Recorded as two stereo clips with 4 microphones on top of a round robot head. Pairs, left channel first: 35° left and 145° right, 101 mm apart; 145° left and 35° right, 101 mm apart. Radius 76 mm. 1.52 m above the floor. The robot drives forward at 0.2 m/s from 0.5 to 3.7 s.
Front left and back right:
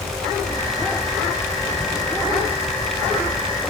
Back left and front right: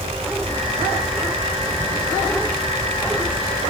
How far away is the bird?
No bird in this recording.